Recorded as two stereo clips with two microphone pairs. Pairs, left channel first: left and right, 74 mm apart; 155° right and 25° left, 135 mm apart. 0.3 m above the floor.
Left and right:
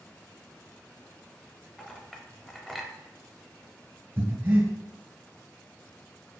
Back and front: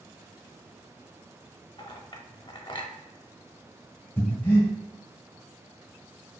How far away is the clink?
About 0.6 m.